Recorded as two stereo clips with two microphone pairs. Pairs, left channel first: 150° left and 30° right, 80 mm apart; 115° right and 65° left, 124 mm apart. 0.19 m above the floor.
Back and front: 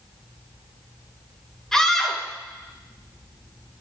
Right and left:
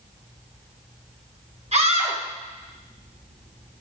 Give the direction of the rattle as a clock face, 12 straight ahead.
I don't hear a rattle.